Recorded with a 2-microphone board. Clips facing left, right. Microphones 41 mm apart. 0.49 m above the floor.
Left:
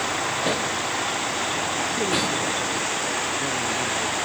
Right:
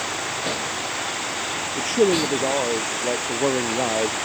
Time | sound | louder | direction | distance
0.0 | a vehicle | left 2 dB | 15° left (ahead or behind) | ?
1.8 | a man speaking | right 8 dB | 85° right | ?